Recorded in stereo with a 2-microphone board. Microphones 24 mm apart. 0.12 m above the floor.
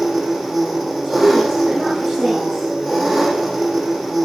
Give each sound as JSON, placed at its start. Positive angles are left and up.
{"t": 0.0, "sound": "an engine running", "side_deg": -15, "distance_m": 5.0}
{"t": 1.0, "sound": "a woman speaking", "side_deg": -30, "distance_m": 7.5}